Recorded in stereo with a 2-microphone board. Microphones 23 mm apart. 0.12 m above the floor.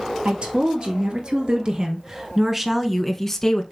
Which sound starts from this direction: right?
A woman speaking, at 0.2 s.